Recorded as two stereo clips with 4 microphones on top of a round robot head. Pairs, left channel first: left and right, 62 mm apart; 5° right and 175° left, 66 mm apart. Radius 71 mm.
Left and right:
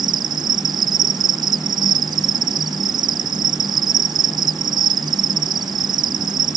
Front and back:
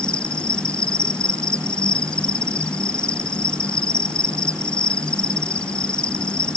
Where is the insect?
80° right.